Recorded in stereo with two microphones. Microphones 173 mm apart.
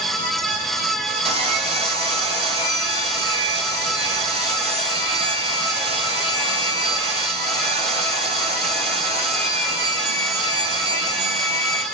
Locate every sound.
1.2 s sawing: 30° right (ahead or behind), 1.0 m